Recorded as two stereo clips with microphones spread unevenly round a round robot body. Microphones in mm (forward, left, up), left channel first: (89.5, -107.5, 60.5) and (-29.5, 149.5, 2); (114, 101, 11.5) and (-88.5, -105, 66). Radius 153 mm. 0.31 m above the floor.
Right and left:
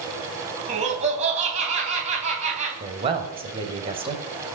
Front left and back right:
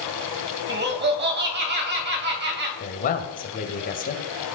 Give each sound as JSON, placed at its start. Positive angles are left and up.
{"t": 0.7, "sound": "laughter", "azimuth_deg": 170, "distance_m": 2.5}
{"t": 2.8, "sound": "a man speaking", "azimuth_deg": 70, "distance_m": 1.7}